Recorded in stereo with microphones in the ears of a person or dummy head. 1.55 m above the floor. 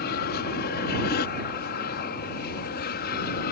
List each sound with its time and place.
0.0 s an aircraft: 55° left (ahead or behind); by 3.5 s 50° left (ahead or behind)